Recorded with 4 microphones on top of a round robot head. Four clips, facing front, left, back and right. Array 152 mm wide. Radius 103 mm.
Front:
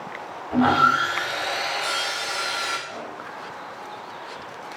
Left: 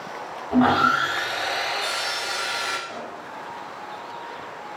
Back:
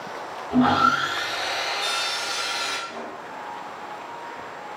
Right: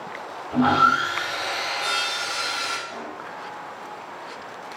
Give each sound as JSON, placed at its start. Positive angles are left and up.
{"t": 0.5, "sound": "sawing", "azimuth_deg": 105, "distance_m": 4.0}
{"t": 2.9, "sound": "a pop", "azimuth_deg": 90, "distance_m": 6.0}